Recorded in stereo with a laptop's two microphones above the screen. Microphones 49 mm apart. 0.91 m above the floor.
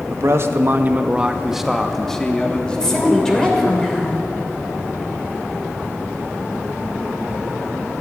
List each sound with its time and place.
0.1 s a man speaking: 65° right (ahead or behind), 0.9 m; by 3.7 s 30° left (ahead or behind), 2 m
2.7 s a woman speaking: 10° left (ahead or behind), 3 m